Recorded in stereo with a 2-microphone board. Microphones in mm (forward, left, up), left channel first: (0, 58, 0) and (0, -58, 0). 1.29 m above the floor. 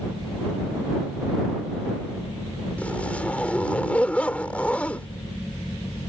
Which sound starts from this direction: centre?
A zipper, at 2.8 s.